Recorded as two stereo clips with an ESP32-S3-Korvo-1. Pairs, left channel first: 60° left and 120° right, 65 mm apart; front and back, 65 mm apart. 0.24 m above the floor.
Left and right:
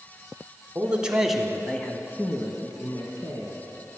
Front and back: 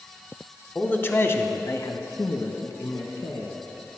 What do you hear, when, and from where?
0.8 s a man speaking: 60° right, 1.5 m; by 3.5 s 35° left, 2.5 m